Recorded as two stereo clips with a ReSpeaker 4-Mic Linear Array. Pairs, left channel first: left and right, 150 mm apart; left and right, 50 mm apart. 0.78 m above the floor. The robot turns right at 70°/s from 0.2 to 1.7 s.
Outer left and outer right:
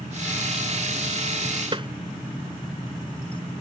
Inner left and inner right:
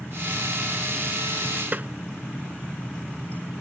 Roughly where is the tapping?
Right.